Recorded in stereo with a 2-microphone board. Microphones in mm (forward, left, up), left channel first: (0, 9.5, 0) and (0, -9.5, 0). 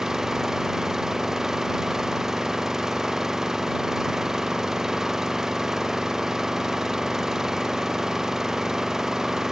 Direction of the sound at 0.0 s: 25° right (ahead or behind).